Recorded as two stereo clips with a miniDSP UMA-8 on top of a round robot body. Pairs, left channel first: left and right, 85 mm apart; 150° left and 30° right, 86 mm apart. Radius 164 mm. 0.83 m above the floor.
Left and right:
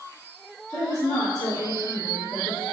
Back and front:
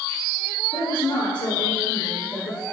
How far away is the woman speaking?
About 3 m.